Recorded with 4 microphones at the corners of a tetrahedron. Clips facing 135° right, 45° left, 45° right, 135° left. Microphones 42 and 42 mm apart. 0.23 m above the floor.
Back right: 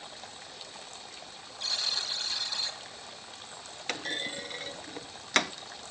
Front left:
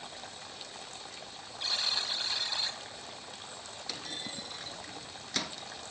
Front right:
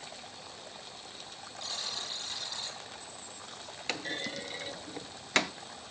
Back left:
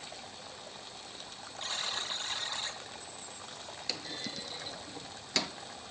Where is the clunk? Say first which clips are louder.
Back right 8 dB, front right 6 dB; 95° right, 0.5 m.